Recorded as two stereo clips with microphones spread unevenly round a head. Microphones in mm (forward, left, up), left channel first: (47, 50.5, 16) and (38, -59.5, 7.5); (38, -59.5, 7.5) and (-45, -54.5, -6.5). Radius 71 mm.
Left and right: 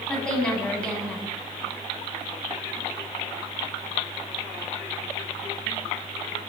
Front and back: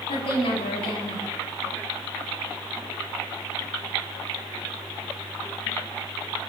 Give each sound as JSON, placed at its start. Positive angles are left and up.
{"t": 0.1, "sound": "a woman speaking", "azimuth_deg": 5, "distance_m": 9.0}